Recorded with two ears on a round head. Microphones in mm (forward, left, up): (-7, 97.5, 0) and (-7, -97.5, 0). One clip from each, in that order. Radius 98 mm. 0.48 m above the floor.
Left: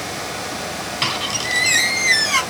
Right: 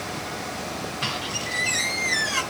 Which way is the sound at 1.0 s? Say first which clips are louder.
Left 8 dB; 65° left (ahead or behind).